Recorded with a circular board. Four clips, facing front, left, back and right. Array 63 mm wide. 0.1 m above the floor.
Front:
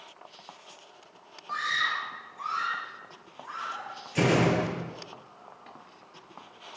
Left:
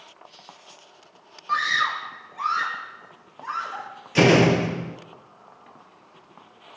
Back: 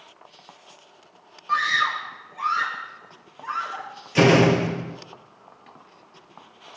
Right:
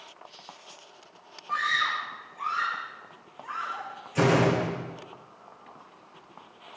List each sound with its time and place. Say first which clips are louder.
1.5 s a scream: left 4 dB, back 7 dB; 115° left, 4 m
4.2 s a door slam: left 6 dB, back 7 dB; 125° left, 1.5 m